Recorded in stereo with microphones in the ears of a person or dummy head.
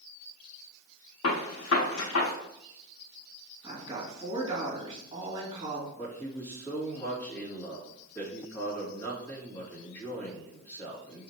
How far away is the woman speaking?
About 2.5 m.